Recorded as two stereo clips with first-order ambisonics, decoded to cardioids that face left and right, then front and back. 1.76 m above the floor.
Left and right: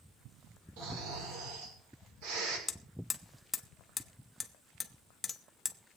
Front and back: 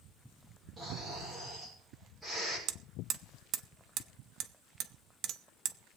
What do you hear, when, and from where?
0.8 s snoring: 90° right, 7 m
2.7 s hammering: 160° left, 0.8 m